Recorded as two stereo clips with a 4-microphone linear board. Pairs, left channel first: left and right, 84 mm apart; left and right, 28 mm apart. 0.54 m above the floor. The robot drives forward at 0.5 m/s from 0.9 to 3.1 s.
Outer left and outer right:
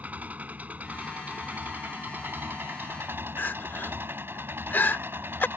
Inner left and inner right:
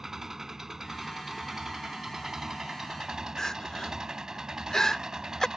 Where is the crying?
20° left (ahead or behind).